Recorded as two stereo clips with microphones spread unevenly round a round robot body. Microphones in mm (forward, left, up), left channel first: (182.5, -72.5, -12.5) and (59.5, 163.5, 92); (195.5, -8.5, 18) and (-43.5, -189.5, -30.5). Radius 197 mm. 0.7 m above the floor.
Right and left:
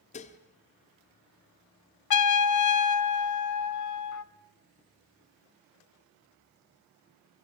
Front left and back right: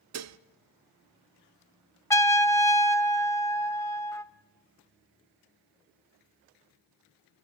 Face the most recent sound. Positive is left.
turn(degrees=-45)